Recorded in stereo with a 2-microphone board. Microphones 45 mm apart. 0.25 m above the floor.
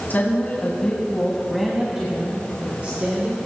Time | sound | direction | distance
0.1 | a woman speaking | 45° left (ahead or behind) | 2 m